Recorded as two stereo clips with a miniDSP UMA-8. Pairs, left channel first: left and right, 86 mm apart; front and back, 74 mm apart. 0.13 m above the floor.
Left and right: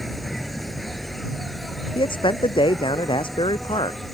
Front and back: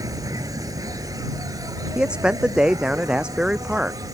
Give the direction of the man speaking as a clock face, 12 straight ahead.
9 o'clock.